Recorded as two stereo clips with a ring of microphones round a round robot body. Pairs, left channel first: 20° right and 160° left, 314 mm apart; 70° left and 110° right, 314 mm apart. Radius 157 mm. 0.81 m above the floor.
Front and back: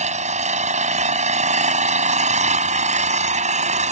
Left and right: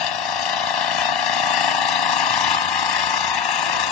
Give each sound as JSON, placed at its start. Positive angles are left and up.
{"t": 0.0, "sound": "an engine running", "azimuth_deg": 85}